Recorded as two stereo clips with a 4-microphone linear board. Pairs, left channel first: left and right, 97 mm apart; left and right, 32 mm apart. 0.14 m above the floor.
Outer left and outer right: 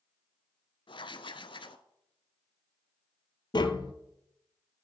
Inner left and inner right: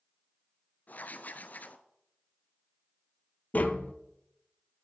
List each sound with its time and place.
0.9 s writing: 60° left (ahead or behind), 0.5 m
3.5 s tapping: 50° left (ahead or behind), 0.6 m